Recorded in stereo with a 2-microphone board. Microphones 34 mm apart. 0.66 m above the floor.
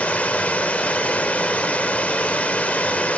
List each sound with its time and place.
0.0 s running water: 50° left (ahead or behind), 1.1 m